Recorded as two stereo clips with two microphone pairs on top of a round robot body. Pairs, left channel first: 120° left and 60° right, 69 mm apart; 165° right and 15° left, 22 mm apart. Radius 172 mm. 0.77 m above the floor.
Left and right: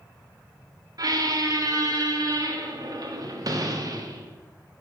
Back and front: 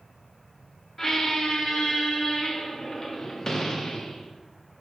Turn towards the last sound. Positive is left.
turn(degrees=-95)